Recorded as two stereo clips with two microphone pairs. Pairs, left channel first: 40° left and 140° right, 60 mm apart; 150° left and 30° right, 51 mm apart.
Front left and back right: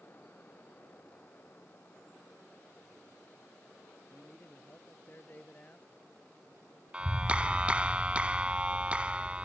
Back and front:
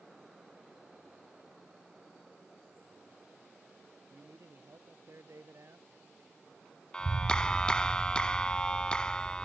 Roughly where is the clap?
Behind.